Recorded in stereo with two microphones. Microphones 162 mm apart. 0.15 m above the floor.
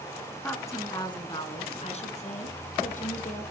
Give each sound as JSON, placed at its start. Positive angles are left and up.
{"t": 0.4, "sound": "a woman speaking", "side_deg": 10, "distance_m": 1.8}